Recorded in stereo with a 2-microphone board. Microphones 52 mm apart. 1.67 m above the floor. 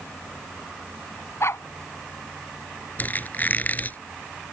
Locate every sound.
1.4 s a dog barking: 55° left (ahead or behind)
3.0 s a squeak: 35° left (ahead or behind)